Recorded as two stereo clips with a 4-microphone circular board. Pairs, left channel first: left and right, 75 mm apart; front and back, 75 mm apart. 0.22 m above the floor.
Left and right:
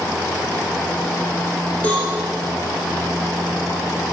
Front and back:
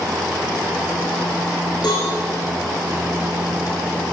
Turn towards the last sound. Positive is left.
turn(degrees=20)